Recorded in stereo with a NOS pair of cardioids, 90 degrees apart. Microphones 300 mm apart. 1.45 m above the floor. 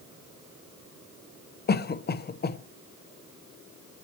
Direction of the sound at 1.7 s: 35° left.